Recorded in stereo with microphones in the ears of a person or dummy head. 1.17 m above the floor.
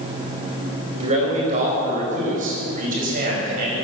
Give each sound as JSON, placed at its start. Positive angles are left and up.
{"t": 1.0, "sound": "a man speaking", "side_deg": -40, "distance_m": 4.0}